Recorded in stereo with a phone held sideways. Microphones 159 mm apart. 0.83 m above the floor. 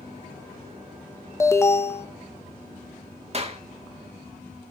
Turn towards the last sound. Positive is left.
turn(degrees=-45)  # may be behind; listen again after turning